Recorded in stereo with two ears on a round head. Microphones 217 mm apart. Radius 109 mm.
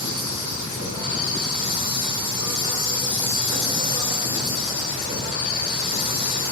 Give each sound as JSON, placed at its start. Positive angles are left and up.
{"t": 0.0, "sound": "an insect", "side_deg": 50, "distance_m": 2.0}